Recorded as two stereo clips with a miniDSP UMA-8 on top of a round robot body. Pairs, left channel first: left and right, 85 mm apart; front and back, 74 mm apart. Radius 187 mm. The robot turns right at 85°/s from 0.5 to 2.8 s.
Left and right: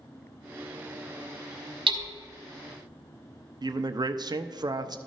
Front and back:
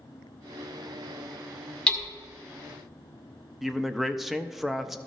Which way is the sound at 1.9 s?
80° right.